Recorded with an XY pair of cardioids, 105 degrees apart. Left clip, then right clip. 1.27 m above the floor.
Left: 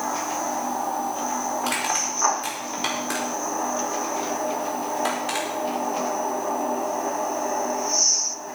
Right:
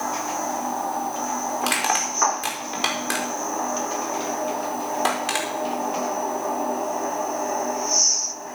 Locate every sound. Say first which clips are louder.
1.6 s crushing: right 5 dB; 50° right, 4.5 m